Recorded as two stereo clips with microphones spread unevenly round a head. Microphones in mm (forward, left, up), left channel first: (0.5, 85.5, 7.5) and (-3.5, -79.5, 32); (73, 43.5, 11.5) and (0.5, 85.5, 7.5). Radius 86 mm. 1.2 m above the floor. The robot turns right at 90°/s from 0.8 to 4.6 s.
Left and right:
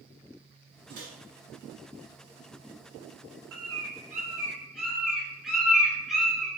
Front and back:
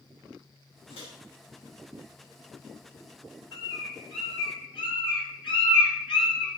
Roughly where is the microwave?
Ahead right.